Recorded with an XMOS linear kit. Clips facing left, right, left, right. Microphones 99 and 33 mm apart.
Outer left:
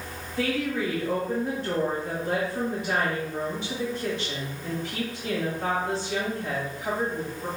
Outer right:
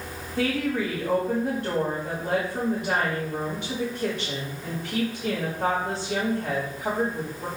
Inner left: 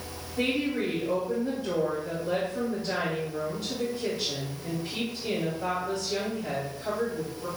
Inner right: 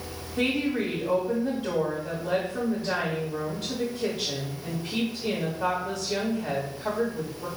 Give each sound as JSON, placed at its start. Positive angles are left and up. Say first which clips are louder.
{"t": 0.4, "sound": "a woman speaking", "louder": "outer right 2 dB, inner right 2 dB", "side_deg": -50, "distance_m": 1.4}